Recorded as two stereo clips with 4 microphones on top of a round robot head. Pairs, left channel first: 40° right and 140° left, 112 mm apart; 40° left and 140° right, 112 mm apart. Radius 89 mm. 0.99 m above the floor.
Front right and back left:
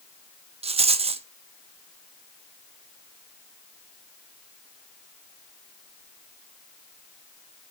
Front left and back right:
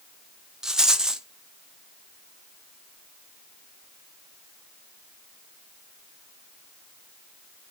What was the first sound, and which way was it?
A rattle, 140° left.